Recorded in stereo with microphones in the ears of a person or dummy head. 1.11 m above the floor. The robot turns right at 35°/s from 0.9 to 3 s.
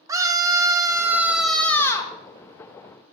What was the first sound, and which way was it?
A scream, 20° right.